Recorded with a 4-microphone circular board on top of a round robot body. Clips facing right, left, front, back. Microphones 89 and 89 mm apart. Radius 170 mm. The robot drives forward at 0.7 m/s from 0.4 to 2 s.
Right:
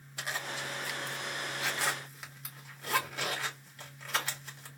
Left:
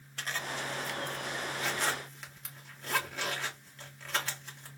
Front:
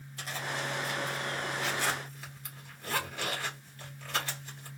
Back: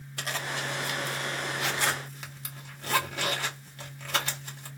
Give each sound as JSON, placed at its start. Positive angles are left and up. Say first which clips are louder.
{"t": 0.2, "sound": "a zipper", "louder": "left 1 dB, back 3 dB", "azimuth_deg": -170, "distance_m": 0.9}